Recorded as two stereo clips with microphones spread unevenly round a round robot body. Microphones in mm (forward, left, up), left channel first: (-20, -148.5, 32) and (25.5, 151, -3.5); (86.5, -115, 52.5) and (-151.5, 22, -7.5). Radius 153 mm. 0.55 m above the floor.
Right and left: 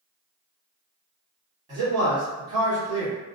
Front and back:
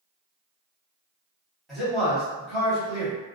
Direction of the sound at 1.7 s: 95° left.